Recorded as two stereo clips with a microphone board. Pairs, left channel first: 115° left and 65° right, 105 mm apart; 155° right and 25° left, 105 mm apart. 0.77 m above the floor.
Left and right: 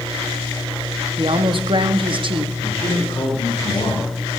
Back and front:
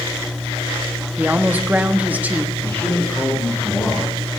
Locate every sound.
1.2 s a woman speaking: 50° right, 0.9 m
2.6 s a man speaking: 140° left, 4.5 m